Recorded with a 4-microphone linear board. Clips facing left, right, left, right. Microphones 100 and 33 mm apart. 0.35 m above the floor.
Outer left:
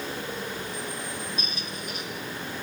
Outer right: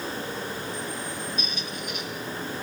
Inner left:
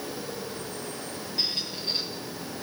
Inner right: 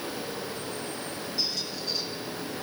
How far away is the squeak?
About 3.5 m.